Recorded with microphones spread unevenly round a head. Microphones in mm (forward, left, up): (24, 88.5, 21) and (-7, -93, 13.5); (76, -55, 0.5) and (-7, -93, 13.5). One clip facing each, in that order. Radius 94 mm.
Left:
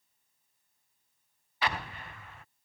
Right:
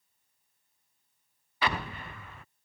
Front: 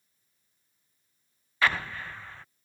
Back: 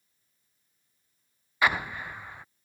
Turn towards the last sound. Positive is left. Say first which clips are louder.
# right 2 dB, back 1 dB
turn(degrees=-80)